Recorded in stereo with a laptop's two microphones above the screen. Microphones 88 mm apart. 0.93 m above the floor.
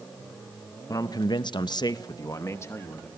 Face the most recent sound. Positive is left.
turn(degrees=25)  # may be behind; listen again after turning